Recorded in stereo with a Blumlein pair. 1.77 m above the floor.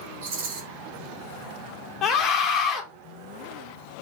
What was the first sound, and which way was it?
A rattle, 60° right.